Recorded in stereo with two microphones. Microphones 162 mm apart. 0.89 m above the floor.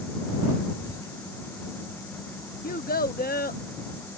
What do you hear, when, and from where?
0.8 s whispering: 25° left (ahead or behind)
2.6 s a child speaking: 65° left (ahead or behind)